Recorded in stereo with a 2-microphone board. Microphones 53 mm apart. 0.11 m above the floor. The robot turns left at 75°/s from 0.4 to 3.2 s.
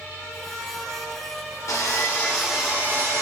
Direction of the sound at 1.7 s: 55° left.